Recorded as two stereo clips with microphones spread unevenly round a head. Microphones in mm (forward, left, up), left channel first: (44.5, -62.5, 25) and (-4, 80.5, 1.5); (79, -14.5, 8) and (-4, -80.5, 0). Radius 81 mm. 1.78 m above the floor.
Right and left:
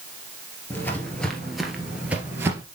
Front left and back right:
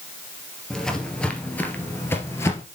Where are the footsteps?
35° right, 1.9 m; by 2.6 s 35° left, 2.0 m.